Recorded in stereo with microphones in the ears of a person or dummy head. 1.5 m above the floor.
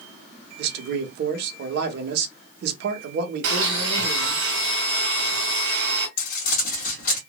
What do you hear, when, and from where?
0.6 s a man speaking: 55° right (ahead or behind), 1.2 m
3.4 s a blender: 70° right (ahead or behind), 1.7 m
6.2 s crumpling: 50° left (ahead or behind), 1.4 m